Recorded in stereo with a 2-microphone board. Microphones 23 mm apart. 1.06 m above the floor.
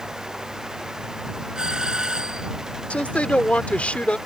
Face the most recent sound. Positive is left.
turn(degrees=80)